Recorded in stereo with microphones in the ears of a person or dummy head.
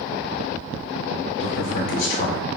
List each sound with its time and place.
1.4 s a man speaking: 60° left (ahead or behind), 1.0 m